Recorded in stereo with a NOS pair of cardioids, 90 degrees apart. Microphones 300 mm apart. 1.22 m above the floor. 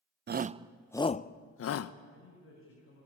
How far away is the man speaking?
About 7.5 m.